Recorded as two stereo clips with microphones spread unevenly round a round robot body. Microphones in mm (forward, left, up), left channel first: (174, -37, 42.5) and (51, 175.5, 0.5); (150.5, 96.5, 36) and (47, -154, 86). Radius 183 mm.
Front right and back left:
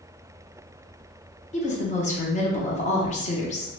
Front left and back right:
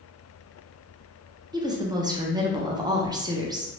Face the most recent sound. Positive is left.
turn(degrees=-30)